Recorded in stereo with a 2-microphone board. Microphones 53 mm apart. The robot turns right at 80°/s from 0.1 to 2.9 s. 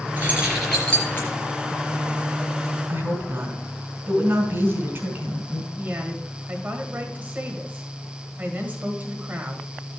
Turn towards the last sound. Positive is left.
turn(degrees=-35)  # may be behind; listen again after turning